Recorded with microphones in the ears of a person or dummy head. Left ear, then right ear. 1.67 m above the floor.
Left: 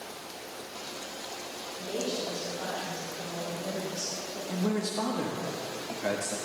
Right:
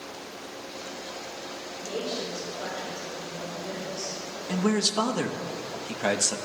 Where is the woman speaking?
10° left (ahead or behind), 3.5 m; by 4.4 s 40° left (ahead or behind), 3.5 m.